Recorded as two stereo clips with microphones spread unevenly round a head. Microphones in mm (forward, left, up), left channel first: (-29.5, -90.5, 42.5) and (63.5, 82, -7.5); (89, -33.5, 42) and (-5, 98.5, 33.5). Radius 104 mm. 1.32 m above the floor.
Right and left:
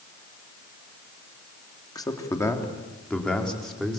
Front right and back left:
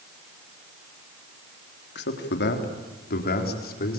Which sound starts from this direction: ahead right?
A man speaking, at 1.9 s.